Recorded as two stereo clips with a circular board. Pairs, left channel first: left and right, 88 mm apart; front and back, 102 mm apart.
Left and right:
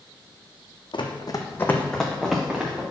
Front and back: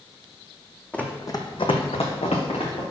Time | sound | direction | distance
0.9 | running footsteps | 80° left | 1.1 m